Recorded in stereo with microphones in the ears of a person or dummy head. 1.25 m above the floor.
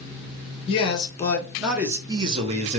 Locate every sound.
0.7 s a man speaking: 30° left (ahead or behind), 0.9 m; by 2.8 s 45° right (ahead or behind), 1.0 m